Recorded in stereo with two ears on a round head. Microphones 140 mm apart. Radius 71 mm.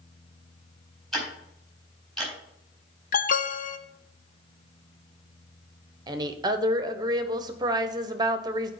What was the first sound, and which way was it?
Ticking, centre (ahead or behind).